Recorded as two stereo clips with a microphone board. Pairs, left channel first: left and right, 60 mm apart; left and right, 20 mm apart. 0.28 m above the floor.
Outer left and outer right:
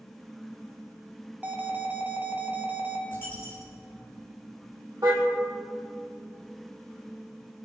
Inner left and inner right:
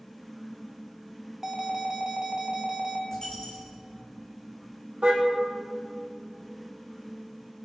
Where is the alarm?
25° right (ahead or behind), 2.5 m.